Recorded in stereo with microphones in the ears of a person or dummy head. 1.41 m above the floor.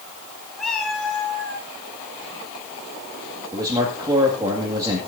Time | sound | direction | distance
0.6 | a cat meowing | centre (ahead or behind) | 2 m
3.5 | a man speaking | 20° right (ahead or behind) | 2 m